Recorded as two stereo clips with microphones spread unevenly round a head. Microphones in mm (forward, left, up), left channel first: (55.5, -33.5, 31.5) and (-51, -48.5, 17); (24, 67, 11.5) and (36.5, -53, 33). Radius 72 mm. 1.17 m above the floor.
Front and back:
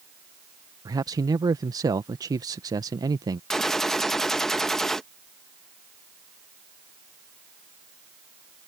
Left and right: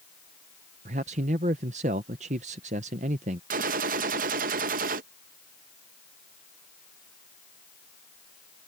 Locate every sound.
0.8 s a man speaking: 120° right
3.5 s a gunshot: 75° right